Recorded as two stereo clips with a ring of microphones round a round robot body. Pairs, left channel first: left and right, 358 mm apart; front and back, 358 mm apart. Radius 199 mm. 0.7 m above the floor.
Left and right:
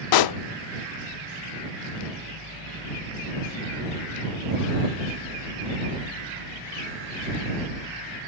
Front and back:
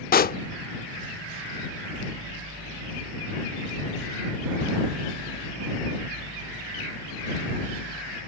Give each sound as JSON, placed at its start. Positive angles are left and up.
{"t": 0.1, "sound": "a pop", "azimuth_deg": 65}